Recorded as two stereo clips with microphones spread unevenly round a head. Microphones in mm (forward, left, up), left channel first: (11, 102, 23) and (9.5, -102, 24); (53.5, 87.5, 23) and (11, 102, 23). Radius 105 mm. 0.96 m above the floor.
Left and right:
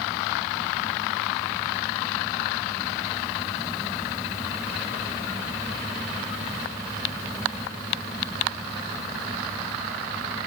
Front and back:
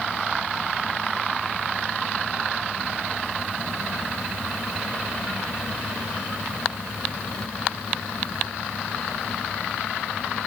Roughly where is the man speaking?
I don't hear a man speaking.